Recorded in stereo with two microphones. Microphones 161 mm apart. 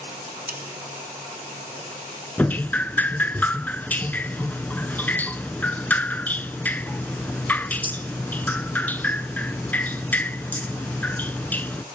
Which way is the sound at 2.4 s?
10° left (ahead or behind).